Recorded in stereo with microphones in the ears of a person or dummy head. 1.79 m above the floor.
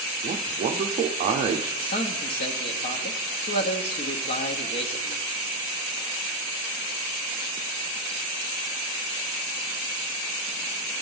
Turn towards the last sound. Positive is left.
turn(degrees=45)  # may be behind; listen again after turning